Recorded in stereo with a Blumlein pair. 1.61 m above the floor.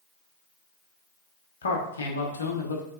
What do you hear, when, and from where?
1.6 s a man speaking: 70° left, 0.9 m